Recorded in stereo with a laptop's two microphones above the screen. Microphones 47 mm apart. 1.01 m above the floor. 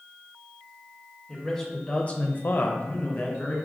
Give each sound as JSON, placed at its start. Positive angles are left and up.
{"t": 1.3, "sound": "a man speaking", "side_deg": 10, "distance_m": 1.1}